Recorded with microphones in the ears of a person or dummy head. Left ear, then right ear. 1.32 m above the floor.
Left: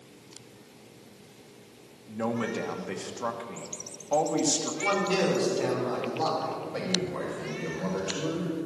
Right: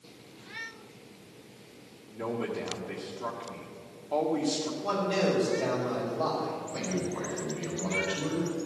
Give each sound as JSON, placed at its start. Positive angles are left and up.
{"t": 2.1, "sound": "a man speaking", "side_deg": 55, "distance_m": 1.4}
{"t": 4.8, "sound": "a man speaking", "side_deg": 55, "distance_m": 4.5}
{"t": 6.7, "sound": "a man speaking", "side_deg": 50, "distance_m": 5.0}